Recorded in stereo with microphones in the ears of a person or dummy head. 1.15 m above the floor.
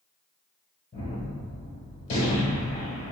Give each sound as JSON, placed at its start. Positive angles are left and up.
{"t": 0.9, "sound": "a gunshot", "side_deg": 40, "distance_m": 1.8}